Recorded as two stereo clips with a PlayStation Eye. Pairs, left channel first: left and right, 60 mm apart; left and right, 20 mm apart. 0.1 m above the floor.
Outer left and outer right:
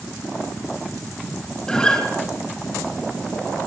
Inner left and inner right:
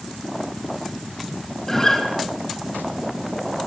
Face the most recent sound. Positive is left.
turn(degrees=15)  # may be behind; listen again after turning